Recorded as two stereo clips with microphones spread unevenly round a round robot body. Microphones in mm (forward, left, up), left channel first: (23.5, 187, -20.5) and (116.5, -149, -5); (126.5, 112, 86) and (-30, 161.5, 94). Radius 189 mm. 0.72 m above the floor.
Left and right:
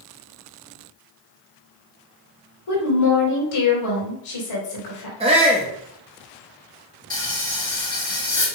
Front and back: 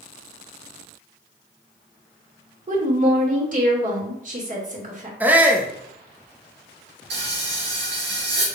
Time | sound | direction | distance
2.7 | a woman speaking | 125° left | 3 m
5.2 | a shout | 125° right | 0.7 m
7.1 | frying | 175° right | 2.0 m